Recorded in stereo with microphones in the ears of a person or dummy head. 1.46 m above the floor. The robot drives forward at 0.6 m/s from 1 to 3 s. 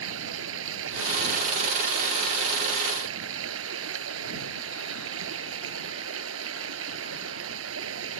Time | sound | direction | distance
0.0 | running water | 85° right | ?